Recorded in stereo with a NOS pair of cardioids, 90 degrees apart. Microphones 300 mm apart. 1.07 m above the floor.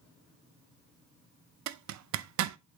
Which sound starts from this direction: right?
A zipper, at 1.7 s.